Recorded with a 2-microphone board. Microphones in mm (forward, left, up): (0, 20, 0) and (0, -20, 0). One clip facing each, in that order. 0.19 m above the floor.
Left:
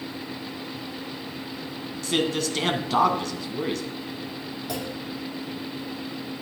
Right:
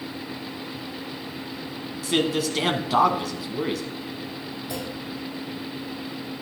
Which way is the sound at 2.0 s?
5° right (ahead or behind).